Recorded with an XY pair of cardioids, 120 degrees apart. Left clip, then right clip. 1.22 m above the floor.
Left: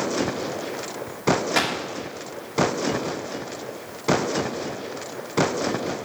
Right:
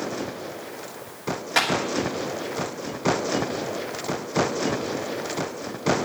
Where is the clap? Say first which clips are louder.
Right 6 dB; straight ahead, 2.5 m.